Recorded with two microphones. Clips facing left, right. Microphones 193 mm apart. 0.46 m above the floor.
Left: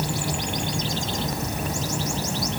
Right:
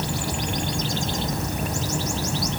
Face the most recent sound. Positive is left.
No sound to turn to.